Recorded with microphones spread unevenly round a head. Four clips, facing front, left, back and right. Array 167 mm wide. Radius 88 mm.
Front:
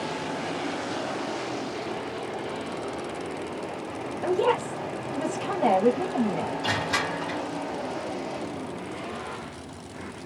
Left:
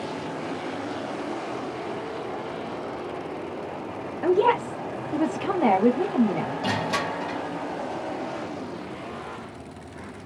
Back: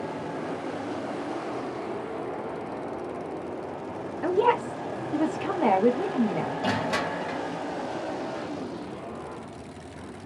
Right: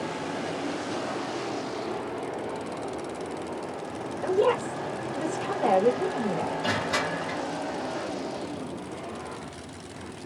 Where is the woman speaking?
100° left, 1.2 m.